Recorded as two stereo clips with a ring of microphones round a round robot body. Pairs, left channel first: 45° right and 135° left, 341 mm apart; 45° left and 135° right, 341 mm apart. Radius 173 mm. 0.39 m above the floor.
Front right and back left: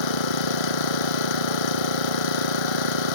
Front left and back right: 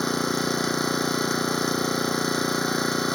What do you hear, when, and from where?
0.0 s an engine running: 45° right